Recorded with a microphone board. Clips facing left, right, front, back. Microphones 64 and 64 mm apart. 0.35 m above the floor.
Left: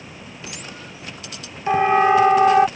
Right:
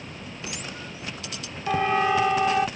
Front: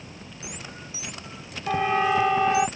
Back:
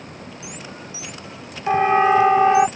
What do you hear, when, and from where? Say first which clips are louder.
1.7 s a siren: left 7 dB, back 7 dB; 140° left; by 2.7 s 130° left